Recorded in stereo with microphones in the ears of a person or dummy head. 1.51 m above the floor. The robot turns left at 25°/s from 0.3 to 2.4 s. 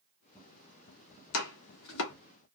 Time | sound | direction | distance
1.3 | chopping | 85° left | 1.0 m